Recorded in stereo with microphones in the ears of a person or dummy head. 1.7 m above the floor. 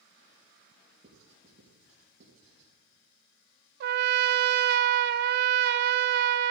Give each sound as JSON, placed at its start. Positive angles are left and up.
{"t": 1.0, "sound": "writing", "side_deg": -45, "distance_m": 4.5}
{"t": 3.8, "sound": "a trumpet", "side_deg": -65, "distance_m": 0.6}